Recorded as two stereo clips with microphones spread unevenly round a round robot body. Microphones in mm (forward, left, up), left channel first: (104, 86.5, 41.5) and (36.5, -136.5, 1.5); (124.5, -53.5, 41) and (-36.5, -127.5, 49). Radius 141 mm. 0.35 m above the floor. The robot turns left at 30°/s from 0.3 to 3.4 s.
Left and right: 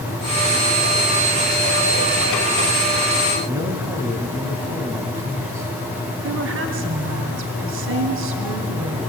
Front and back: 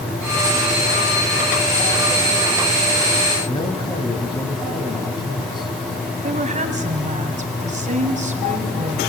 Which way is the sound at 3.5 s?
35° right.